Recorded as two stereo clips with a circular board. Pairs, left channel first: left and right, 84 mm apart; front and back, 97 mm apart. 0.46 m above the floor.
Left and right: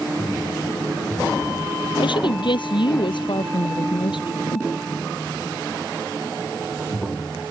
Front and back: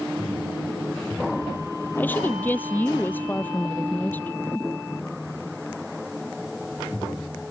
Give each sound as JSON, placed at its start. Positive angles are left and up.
{"t": 2.0, "sound": "a woman speaking", "azimuth_deg": 70}